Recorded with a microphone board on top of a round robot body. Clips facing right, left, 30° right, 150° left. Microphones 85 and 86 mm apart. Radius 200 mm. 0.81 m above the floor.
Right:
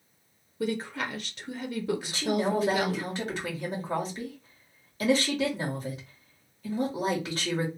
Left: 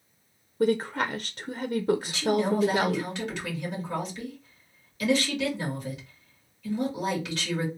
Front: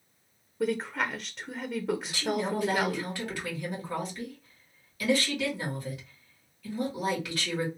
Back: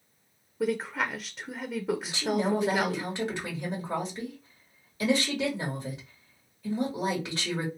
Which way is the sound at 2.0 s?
145° right.